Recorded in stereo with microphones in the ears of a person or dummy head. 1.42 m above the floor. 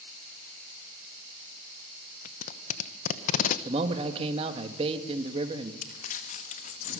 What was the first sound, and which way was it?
Tape being pulled, 40° left (ahead or behind).